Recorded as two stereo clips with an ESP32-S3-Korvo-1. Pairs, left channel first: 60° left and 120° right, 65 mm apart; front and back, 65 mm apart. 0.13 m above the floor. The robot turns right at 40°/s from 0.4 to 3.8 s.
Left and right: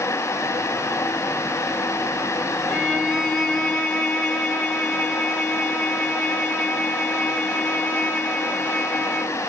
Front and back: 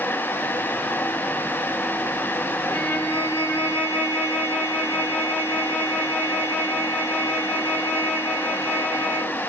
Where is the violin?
50° right, 1.6 m; by 9.4 s 5° right, 1.6 m.